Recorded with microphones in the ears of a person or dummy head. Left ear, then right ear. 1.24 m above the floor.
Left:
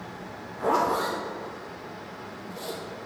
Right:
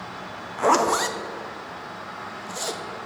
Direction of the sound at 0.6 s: 60° right (ahead or behind).